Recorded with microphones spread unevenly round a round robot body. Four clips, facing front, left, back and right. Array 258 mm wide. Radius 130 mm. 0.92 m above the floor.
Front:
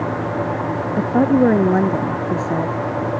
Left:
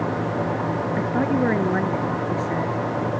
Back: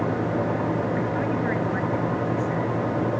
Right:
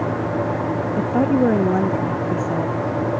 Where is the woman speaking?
15° right.